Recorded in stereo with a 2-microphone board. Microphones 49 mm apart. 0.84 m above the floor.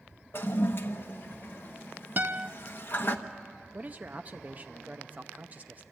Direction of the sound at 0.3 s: 45° left (ahead or behind).